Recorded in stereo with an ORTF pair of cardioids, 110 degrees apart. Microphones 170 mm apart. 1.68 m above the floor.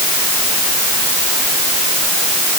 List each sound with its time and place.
Only background noise.